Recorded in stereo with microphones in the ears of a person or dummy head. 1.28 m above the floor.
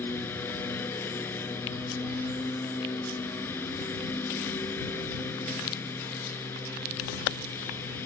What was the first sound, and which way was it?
A lawn mower, 15° left (ahead or behind).